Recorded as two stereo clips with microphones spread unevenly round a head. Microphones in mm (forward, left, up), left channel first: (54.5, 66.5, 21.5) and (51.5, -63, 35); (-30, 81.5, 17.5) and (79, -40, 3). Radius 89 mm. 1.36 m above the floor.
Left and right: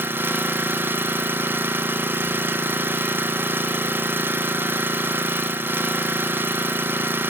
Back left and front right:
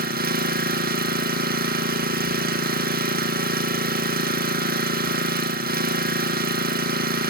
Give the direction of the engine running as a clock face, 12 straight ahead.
1 o'clock.